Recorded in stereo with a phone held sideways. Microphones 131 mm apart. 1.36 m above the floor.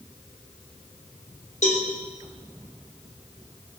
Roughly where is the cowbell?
Left.